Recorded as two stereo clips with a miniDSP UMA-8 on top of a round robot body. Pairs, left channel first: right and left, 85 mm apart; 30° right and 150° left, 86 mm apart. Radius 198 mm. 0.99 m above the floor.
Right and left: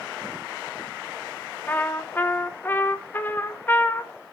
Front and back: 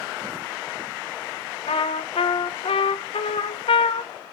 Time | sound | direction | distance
1.7 | a trumpet | 20° right | 1.1 m